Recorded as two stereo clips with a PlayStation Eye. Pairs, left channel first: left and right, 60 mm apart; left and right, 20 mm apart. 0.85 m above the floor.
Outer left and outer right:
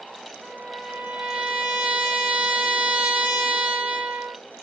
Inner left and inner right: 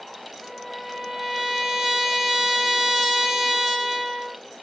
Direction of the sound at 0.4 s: 20° right (ahead or behind).